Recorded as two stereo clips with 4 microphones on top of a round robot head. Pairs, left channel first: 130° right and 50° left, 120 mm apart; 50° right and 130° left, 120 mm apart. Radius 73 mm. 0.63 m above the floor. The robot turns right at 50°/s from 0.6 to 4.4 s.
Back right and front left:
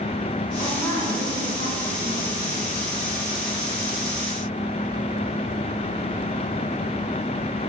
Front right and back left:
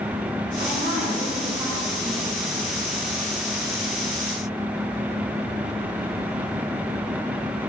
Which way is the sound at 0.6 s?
140° left.